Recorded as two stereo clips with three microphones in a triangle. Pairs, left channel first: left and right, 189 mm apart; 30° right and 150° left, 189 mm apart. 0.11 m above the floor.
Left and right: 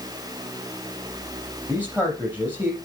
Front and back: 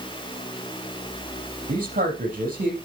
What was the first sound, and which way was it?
A man speaking, 170° right.